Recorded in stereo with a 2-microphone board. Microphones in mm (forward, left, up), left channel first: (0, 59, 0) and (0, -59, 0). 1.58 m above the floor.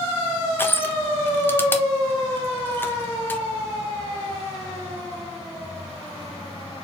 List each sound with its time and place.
0.6 s crushing: 20° left (ahead or behind), 0.6 m